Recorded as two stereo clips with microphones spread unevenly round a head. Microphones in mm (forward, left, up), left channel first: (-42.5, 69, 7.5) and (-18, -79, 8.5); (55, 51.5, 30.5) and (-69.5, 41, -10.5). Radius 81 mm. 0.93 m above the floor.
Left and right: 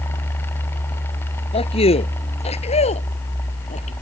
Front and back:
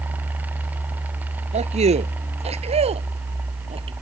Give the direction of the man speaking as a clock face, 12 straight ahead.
7 o'clock.